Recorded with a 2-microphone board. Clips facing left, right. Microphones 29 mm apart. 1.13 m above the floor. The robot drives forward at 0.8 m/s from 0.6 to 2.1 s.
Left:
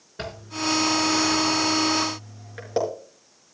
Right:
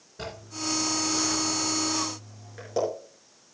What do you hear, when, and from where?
0.2 s a zipper: 50° left (ahead or behind), 4 m; by 2.8 s 40° left (ahead or behind), 4.5 m